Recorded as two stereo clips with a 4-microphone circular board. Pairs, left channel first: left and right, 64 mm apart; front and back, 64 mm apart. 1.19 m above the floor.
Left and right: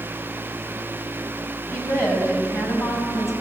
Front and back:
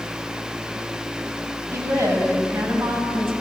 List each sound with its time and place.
1.7 s a woman speaking: 130° left, 6.5 m